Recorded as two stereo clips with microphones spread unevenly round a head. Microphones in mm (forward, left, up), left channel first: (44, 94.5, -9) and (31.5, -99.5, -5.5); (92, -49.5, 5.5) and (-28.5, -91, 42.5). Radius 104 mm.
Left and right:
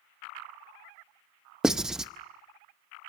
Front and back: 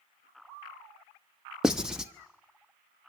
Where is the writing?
170° right, 0.6 m.